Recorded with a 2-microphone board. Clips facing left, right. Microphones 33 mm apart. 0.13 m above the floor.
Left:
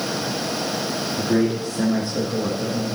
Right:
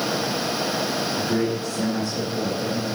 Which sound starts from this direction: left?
A man speaking, at 1.2 s.